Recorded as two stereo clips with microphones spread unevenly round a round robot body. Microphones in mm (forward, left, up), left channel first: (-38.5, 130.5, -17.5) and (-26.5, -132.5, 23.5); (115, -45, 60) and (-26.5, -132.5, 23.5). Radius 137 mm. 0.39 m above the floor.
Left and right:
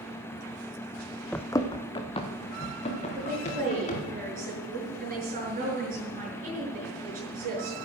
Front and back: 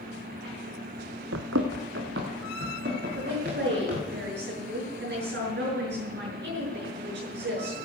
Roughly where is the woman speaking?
Behind right.